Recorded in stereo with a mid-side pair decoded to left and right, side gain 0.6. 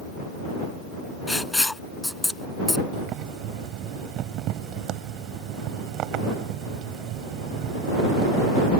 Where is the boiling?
65° right.